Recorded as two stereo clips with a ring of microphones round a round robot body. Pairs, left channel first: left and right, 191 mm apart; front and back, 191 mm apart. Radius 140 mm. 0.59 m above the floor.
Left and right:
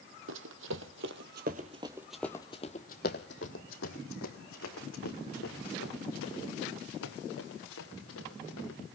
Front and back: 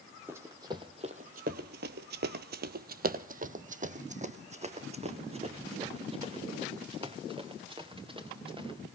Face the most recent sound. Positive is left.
turn(degrees=115)